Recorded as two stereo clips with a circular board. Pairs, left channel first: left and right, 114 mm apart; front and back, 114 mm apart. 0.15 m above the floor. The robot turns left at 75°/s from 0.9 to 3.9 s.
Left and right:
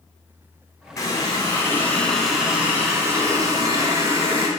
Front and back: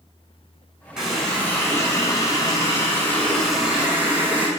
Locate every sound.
1.0 s a running tap: 100° left, 1.0 m; by 4.5 s 120° right, 1.0 m